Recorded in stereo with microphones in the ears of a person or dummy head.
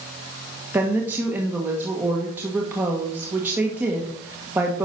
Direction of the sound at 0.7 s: 10° right (ahead or behind).